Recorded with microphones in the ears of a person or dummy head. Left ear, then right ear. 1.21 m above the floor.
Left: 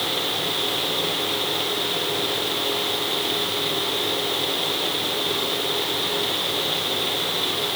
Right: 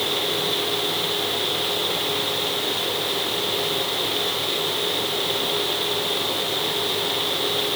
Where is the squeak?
No squeak in this recording.